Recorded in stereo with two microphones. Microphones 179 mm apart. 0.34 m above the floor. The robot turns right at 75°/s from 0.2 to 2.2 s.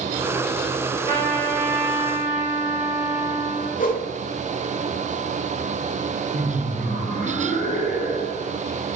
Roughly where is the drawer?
No drawer in this recording.